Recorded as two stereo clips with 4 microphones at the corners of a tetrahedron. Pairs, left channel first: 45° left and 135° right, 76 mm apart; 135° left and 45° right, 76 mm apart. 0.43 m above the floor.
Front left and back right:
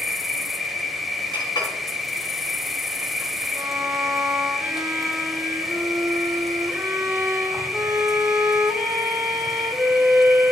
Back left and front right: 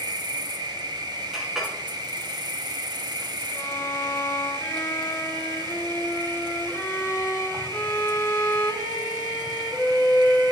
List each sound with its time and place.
0.0 s an insect: 45° right, 0.8 m
1.3 s a clink: 40° left, 2.5 m
3.5 s a violin: straight behind, 1.1 m